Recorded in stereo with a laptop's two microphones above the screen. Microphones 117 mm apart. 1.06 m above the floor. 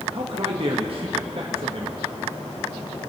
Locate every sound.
0.1 s a man speaking: 50° right (ahead or behind), 1.1 m